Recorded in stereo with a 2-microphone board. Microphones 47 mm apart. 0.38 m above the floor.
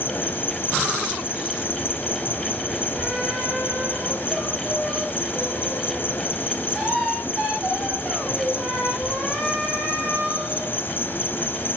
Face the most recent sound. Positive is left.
turn(degrees=45)  # may be behind; listen again after turning